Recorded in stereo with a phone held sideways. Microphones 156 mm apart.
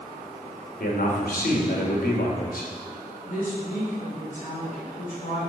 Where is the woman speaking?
65° left (ahead or behind), 5.5 m.